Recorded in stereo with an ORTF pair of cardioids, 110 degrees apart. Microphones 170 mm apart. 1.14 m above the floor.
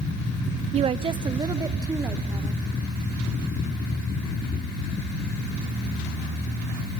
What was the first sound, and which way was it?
A woman speaking, 40° right.